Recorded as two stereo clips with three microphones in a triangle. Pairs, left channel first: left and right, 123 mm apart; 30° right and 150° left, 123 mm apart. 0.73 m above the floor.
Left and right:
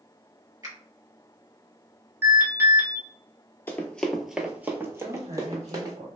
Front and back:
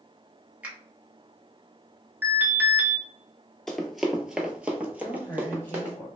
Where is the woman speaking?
100° right, 0.9 m.